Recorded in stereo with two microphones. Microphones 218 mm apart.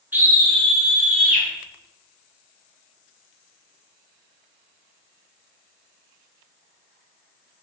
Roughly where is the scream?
Centre.